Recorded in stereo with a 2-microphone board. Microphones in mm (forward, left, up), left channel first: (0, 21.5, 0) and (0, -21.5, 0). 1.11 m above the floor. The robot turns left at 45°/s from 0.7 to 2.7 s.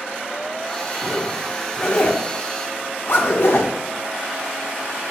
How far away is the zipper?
About 0.8 m.